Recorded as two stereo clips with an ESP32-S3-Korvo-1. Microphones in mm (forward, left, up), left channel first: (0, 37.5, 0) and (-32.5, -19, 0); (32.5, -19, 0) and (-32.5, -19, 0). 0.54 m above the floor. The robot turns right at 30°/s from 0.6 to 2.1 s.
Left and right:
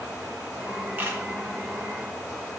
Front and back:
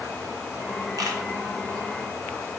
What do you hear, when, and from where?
1.0 s a camera shutter: straight behind, 1.4 m; by 1.2 s 170° right, 1.4 m